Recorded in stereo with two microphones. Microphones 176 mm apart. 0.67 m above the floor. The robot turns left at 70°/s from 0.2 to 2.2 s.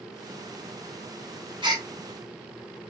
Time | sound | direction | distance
1.6 | a gasp | 25° right (ahead or behind) | 0.9 m